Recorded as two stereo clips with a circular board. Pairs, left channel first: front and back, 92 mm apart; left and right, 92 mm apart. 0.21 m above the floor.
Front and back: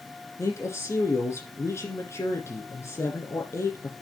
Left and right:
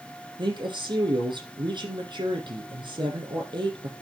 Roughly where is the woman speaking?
Ahead right.